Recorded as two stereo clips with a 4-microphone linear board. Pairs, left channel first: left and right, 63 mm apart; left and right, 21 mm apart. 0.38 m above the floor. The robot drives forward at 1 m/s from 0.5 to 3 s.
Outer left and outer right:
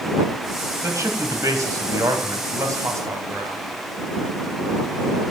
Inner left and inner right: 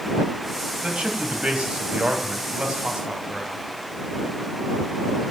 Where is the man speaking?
55° right (ahead or behind), 3 m.